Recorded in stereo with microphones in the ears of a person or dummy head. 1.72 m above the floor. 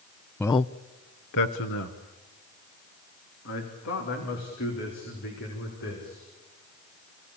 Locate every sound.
0.4 s a man speaking: 10° left (ahead or behind), 0.6 m; by 6.3 s 65° left (ahead or behind), 5.5 m